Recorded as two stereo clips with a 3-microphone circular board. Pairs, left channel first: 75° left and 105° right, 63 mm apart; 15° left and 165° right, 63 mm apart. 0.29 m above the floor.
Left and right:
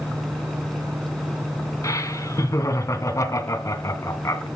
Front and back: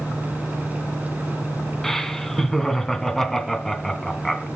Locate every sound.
1.8 s laughter: 100° left, 3 m